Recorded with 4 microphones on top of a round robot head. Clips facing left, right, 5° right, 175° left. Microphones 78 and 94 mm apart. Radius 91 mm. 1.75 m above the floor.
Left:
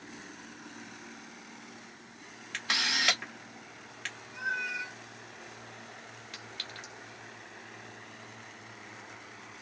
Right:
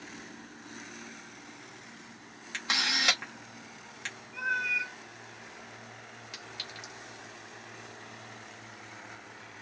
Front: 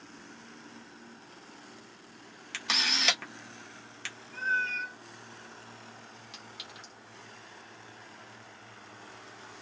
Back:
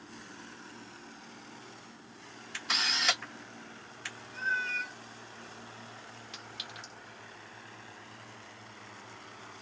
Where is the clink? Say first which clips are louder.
Even, back 3 dB; 165° right, 0.7 m.